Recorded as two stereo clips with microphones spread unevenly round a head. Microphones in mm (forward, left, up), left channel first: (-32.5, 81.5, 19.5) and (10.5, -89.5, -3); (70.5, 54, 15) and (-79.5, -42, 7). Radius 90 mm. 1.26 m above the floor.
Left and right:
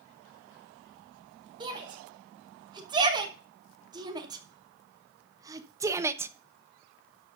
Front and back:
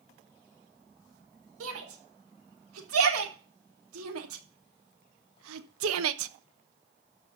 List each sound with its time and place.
1.6 s a shout: 140° right, 4 m; by 6.3 s 155° right, 0.9 m